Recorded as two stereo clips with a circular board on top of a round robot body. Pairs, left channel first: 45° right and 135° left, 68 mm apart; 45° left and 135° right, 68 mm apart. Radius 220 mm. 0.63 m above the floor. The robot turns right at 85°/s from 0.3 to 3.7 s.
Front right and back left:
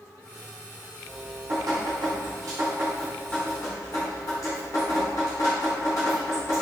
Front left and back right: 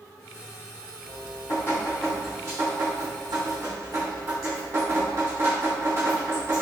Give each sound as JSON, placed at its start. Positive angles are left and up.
{"t": 1.1, "sound": "dripping", "azimuth_deg": 50, "distance_m": 0.9}